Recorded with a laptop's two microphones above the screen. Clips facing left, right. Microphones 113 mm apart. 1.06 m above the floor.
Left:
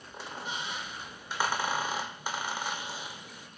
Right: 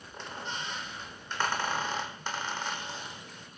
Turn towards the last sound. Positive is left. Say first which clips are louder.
# even
turn(degrees=10)  # may be behind; listen again after turning